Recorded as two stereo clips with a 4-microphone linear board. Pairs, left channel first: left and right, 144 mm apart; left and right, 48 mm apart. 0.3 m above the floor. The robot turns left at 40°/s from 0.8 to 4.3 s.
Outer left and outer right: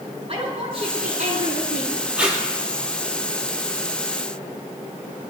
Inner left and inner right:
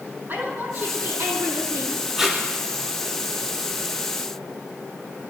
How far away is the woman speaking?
About 8 m.